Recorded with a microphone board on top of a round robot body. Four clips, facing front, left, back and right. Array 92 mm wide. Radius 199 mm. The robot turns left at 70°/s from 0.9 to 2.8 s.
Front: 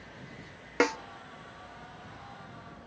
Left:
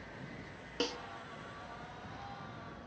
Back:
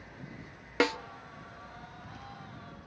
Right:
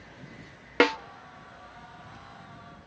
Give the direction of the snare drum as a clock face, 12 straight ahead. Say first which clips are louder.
Right 15 dB, front 1 dB; 2 o'clock.